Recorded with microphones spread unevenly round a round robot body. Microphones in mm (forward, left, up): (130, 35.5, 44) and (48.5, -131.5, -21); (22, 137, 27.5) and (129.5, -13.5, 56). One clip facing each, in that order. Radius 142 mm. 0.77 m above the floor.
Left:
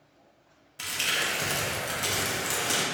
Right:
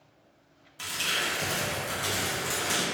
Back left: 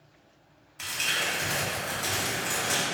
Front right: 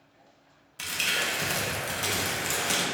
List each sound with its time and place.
0.8 s crumpling: 15° right, 0.6 m